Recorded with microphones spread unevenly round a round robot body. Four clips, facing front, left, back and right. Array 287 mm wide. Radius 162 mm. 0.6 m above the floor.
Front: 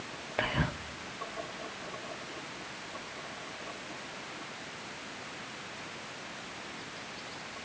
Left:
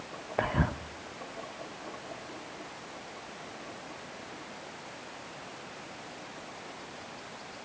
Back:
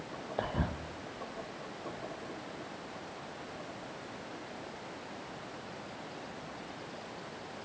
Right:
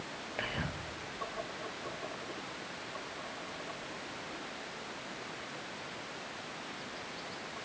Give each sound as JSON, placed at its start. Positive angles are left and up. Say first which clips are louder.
{"t": 0.4, "sound": "whispering", "louder": "left 10 dB, front 3 dB", "azimuth_deg": 65, "distance_m": 0.9}